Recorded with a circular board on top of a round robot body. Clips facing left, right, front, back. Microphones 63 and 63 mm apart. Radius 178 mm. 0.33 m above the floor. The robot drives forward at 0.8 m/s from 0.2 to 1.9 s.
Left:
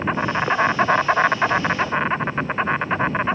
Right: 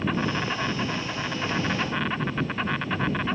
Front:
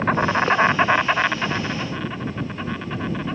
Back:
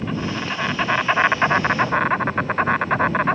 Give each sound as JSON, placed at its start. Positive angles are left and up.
{"t": 0.0, "sound": "an insect", "azimuth_deg": 35}